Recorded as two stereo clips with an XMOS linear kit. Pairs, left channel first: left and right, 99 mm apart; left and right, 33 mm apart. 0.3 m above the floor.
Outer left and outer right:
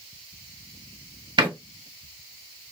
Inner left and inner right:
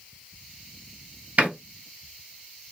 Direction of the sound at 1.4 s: 50° right (ahead or behind).